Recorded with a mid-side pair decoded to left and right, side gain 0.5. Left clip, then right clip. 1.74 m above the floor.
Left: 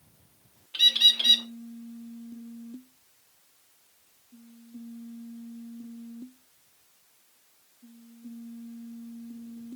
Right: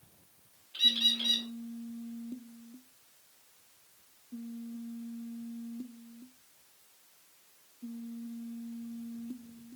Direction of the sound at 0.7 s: 60° left.